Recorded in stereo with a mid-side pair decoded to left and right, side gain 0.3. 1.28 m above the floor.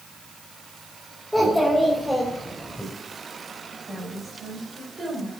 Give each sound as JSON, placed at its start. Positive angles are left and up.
{"t": 1.3, "sound": "a child speaking", "azimuth_deg": 0, "distance_m": 4.5}
{"t": 3.9, "sound": "a woman speaking", "azimuth_deg": -55, "distance_m": 4.5}